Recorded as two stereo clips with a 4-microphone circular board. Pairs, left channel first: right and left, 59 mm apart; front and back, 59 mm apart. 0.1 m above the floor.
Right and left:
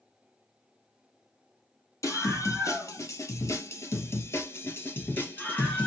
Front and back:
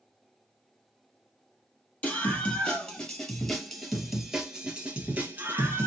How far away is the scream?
About 2.5 m.